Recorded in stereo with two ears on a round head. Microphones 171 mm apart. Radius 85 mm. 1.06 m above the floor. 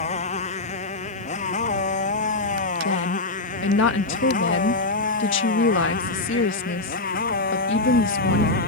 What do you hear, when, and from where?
0.0 s a motorcycle: 35° left (ahead or behind); by 8.7 s 50° left (ahead or behind)
2.8 s a woman speaking: 70° left (ahead or behind)